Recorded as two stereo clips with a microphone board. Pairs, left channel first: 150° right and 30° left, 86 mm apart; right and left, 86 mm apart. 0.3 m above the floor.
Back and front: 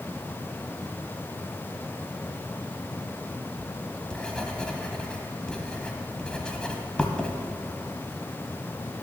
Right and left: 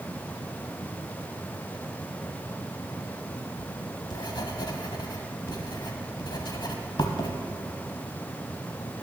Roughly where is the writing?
Right.